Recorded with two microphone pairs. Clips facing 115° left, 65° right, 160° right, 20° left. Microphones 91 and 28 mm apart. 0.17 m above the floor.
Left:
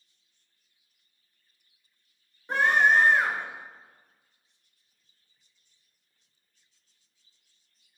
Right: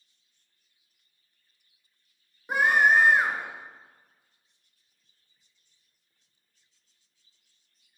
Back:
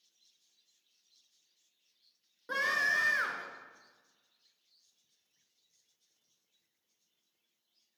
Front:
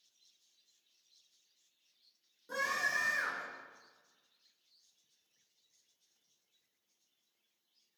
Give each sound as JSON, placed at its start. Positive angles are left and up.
{"t": 2.5, "sound": "a scream", "azimuth_deg": -140, "distance_m": 2.5}